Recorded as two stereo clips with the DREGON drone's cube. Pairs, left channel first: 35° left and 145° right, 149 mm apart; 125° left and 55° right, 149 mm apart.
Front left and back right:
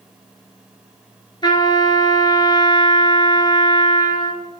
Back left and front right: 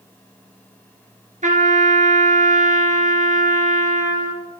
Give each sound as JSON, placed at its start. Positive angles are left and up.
{"t": 1.4, "sound": "a trumpet", "azimuth_deg": -25, "distance_m": 1.3}